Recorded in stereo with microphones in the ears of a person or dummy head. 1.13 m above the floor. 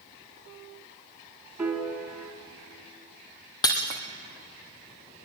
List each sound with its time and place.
1.6 s a piano: 10° right (ahead or behind), 2.5 m
3.6 s breaking glass: 20° left (ahead or behind), 2 m